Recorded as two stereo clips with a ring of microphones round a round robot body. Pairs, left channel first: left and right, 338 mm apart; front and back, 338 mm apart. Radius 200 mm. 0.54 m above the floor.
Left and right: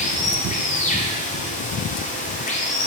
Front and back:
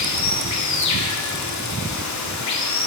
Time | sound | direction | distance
0.0 | running water | 25° left | 1.4 m